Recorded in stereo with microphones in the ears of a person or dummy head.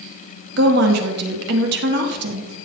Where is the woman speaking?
55° right (ahead or behind), 2.5 m.